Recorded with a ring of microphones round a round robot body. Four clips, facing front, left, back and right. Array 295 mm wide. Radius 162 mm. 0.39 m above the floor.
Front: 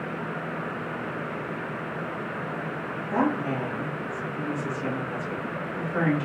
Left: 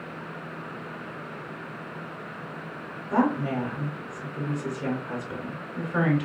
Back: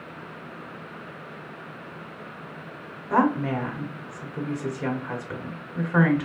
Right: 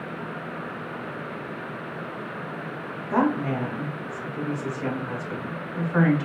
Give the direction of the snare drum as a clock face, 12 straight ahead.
I don't hear a snare drum.